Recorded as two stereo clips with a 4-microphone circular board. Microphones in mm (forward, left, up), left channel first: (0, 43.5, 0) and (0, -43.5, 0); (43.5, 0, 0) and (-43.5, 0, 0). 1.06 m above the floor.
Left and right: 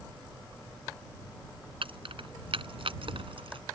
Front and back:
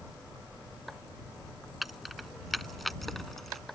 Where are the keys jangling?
90° right; by 3.6 s 85° right.